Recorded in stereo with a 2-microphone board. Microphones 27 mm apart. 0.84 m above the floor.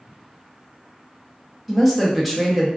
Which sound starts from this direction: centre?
A woman speaking, at 1.7 s.